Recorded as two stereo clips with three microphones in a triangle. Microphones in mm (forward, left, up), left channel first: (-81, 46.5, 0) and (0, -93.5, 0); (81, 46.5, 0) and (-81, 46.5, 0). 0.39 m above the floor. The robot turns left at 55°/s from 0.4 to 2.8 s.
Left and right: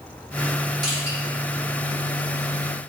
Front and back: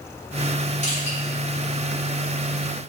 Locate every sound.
0.8 s crushing: 5° right, 2 m; by 1.2 s 25° right, 2 m